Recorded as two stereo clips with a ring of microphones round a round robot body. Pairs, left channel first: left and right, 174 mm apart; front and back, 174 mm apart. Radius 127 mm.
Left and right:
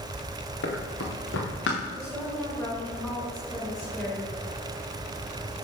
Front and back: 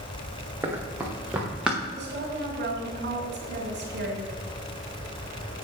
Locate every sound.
0.6 s running footsteps: 105° left, 3 m; by 1.8 s 95° left, 4 m
1.9 s a woman speaking: 175° left, 3 m